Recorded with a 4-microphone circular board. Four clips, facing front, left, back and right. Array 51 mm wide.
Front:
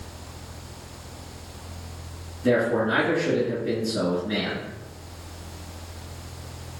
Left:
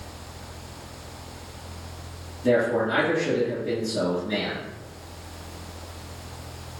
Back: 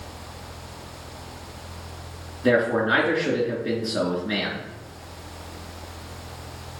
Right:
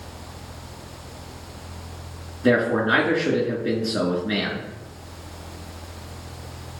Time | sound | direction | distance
2.4 | a man speaking | 135° right | 3 m